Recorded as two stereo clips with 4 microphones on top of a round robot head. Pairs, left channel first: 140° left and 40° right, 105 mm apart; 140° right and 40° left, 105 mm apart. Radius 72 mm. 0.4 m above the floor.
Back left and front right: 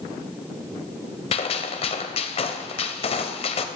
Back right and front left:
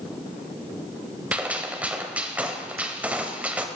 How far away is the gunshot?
About 1.1 m.